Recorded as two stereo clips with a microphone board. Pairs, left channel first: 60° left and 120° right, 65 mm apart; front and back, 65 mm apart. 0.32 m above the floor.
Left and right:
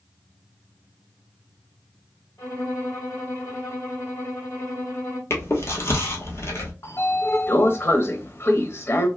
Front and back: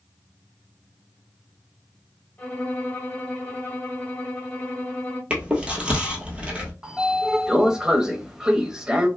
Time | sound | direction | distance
2.4 | a violin | 65° left | 1.7 m
5.3 | chewing | 105° left | 1.2 m
6.8 | a sliding door | 100° left | 0.6 m